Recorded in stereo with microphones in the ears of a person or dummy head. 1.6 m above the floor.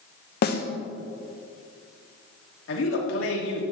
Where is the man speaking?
85° left, 3 m.